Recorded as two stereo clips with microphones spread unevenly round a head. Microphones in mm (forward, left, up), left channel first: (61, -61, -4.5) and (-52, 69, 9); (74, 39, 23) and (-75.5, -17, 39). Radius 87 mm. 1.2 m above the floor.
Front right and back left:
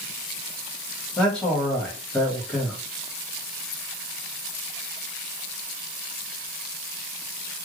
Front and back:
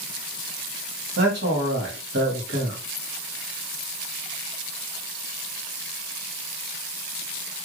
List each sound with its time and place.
1.2 s a man speaking: 135° right, 1.6 m